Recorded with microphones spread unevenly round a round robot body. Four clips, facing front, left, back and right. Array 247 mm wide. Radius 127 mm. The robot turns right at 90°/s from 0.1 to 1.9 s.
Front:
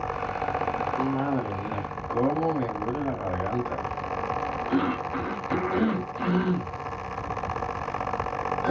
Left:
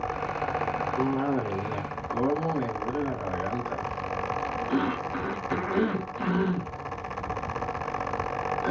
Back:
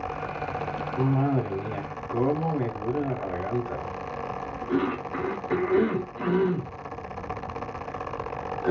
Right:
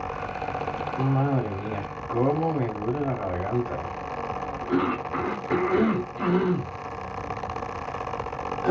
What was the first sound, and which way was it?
A cough, 170° right.